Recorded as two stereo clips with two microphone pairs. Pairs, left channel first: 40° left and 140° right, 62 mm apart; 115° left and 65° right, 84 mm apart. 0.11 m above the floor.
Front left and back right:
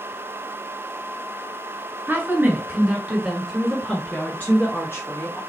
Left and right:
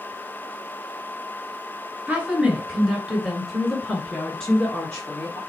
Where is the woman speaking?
120° right, 1.6 m; by 5.4 s 50° left, 1.8 m.